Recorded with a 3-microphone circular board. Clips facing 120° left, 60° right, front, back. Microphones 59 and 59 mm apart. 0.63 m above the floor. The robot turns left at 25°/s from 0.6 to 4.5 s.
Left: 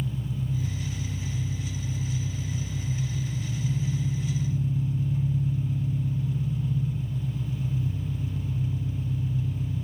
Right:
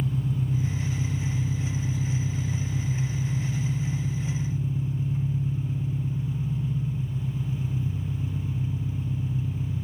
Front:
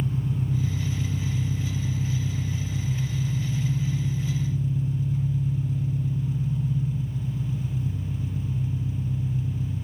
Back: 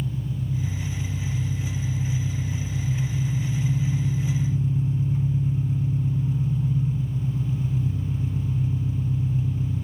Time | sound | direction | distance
0.0 | an engine running | 25° right | 1.9 m